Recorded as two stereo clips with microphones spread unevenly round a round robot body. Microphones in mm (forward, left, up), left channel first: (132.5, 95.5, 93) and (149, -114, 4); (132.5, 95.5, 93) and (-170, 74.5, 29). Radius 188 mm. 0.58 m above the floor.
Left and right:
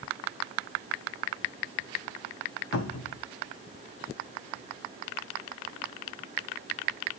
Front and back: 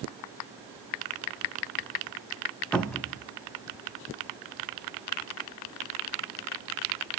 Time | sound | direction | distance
2.7 | a cupboard door | 105° left | 0.8 m